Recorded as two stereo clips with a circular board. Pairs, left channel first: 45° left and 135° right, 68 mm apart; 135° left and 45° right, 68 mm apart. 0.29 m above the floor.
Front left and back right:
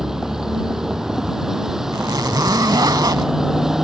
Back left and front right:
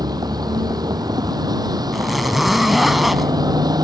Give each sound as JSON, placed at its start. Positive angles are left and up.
{"t": 0.0, "sound": "a vehicle", "azimuth_deg": -50}
{"t": 1.9, "sound": "a zipper", "azimuth_deg": -130}